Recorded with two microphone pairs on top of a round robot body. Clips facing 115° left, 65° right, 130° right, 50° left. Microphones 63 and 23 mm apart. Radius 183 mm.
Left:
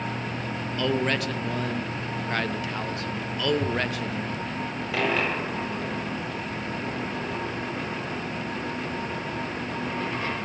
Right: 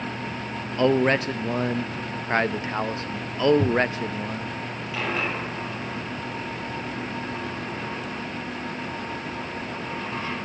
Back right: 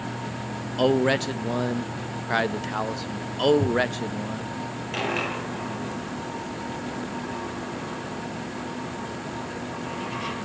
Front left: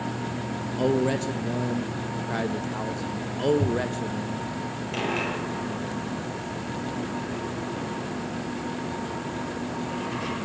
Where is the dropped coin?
150° left, 4.5 m.